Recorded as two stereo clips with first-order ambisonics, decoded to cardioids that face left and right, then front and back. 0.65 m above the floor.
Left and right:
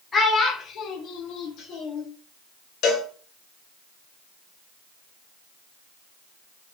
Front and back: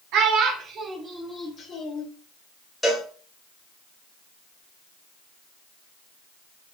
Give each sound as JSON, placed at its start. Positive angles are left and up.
{"t": 0.1, "sound": "a child speaking", "azimuth_deg": 160, "distance_m": 0.8}
{"t": 2.8, "sound": "a cowbell", "azimuth_deg": 85, "distance_m": 1.0}